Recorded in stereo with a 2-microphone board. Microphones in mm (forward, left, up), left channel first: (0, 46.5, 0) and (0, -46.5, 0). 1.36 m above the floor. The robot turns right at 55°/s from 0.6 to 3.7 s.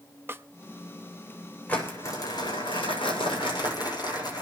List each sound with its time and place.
0.3 s a snare drum: 25° right (ahead or behind), 0.7 m
1.7 s crumpling: 15° left, 7 m; by 4.4 s 125° left, 7 m